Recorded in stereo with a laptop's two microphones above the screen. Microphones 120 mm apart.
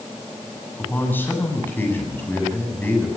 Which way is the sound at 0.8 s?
15° left (ahead or behind).